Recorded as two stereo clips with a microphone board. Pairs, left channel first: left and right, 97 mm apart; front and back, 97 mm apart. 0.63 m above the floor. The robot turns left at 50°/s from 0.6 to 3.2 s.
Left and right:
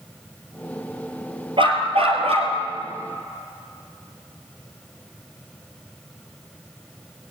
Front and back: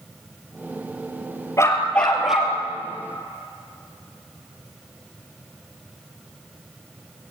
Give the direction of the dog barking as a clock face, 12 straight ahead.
2 o'clock.